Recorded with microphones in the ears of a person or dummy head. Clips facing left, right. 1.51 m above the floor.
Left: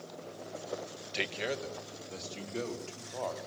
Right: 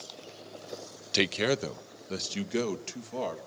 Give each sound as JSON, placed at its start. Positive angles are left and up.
{"t": 1.1, "sound": "a man speaking", "side_deg": -55, "distance_m": 0.7}